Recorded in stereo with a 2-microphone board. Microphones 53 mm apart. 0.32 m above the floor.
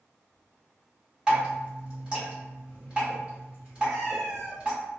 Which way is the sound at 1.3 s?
20° right (ahead or behind).